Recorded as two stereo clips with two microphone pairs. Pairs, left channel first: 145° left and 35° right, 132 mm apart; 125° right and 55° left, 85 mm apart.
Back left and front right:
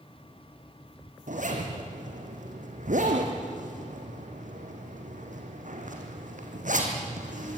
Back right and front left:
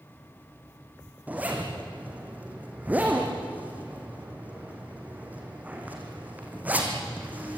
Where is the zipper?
15° right, 3.5 m.